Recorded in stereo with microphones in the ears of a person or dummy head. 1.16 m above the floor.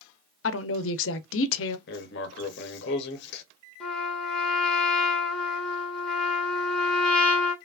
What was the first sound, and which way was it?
A woman speaking, 65° left (ahead or behind).